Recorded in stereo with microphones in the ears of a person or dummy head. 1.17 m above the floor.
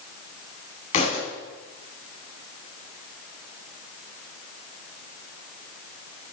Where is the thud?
40° left (ahead or behind), 4.5 m.